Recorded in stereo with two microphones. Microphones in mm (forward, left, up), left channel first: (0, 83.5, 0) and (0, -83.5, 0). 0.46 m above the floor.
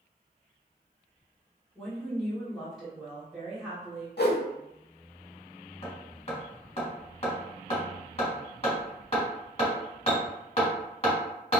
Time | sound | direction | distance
1.8 | a woman speaking | 5° left (ahead or behind) | 1.3 m
4.2 | a whoosh | 80° left | 0.6 m
5.8 | hammering | 40° left (ahead or behind) | 1.5 m